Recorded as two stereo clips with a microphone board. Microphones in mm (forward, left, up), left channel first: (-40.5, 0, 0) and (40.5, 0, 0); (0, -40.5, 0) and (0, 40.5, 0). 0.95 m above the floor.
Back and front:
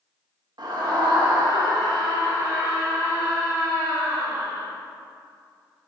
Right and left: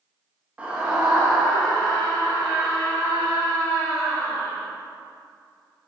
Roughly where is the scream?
Ahead.